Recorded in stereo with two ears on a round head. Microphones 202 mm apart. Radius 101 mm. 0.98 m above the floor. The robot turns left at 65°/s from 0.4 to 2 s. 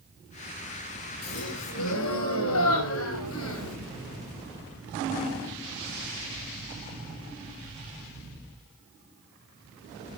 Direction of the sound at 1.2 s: 130° left.